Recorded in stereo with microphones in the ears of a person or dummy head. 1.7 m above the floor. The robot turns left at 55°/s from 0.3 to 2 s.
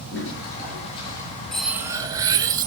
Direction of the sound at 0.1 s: 70° left.